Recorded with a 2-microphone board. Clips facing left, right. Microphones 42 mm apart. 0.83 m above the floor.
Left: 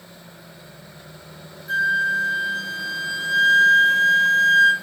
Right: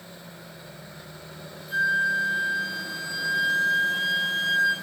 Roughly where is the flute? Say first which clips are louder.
Left 3 dB; left.